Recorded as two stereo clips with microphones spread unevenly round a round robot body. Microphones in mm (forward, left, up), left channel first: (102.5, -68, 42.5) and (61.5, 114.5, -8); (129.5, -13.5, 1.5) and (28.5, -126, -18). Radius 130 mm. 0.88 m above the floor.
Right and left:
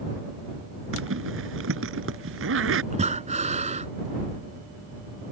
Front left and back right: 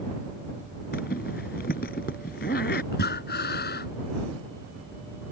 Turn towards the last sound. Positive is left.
turn(degrees=50)